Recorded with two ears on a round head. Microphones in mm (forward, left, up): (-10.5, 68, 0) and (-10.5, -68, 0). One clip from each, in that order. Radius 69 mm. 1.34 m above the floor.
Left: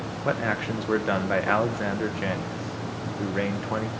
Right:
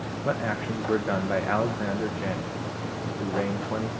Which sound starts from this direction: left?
A man speaking, at 0.2 s.